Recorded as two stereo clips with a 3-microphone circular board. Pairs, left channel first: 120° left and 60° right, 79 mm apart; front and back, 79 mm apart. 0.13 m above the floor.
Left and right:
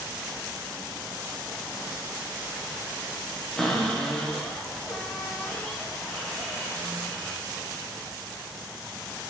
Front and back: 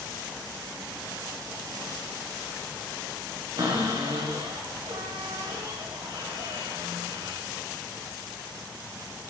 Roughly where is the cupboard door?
Behind right.